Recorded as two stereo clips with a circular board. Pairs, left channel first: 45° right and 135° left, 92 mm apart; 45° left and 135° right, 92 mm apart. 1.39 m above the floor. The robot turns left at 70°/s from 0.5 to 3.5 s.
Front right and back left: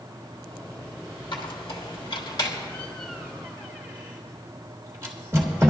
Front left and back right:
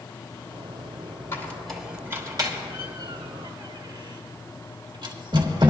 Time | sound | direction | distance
1.3 | a squeak | 15° right | 1.7 m